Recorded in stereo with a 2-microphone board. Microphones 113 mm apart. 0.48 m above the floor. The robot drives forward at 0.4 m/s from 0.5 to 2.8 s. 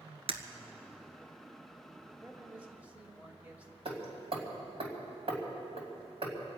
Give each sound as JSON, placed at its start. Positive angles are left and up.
{"t": 0.3, "sound": "breaking glass", "side_deg": -60, "distance_m": 1.0}
{"t": 2.2, "sound": "a man speaking", "side_deg": -15, "distance_m": 1.5}
{"t": 3.9, "sound": "hammering", "side_deg": -55, "distance_m": 2.5}